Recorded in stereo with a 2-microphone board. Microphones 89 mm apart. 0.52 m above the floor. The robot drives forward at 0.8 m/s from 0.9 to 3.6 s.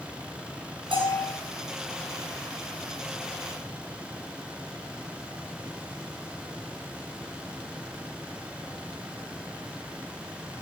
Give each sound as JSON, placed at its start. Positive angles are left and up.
{"t": 0.9, "sound": "a bell", "side_deg": -60, "distance_m": 5.0}